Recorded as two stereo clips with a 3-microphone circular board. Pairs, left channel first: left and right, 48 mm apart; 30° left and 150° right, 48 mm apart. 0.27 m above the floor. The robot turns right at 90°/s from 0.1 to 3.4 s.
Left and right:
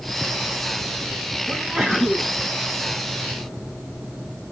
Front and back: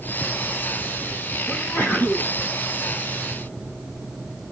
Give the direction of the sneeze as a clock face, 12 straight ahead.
1 o'clock.